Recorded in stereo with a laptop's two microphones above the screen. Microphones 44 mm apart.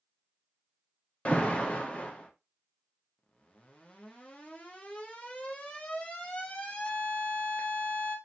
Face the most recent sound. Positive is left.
turn(degrees=25)  # may be behind; listen again after turning